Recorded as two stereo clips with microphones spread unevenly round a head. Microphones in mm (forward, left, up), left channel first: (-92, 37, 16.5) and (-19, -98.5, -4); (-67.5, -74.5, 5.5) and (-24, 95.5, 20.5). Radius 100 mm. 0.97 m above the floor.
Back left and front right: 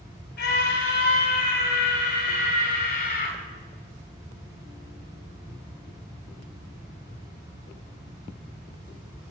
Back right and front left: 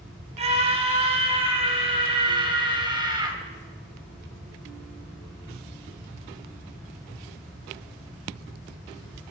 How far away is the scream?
About 7 m.